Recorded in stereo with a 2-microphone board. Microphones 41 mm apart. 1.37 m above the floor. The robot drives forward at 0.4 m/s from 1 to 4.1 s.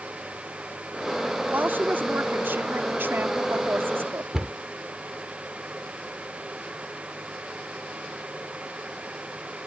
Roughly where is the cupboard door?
Centre.